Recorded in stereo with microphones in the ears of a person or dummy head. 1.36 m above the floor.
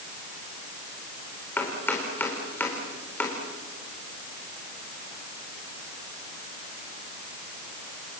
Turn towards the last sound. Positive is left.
turn(degrees=10)  # may be behind; listen again after turning